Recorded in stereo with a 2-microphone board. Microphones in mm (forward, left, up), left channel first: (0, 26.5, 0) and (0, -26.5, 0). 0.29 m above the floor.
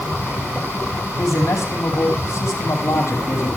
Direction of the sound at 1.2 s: 70° left (ahead or behind).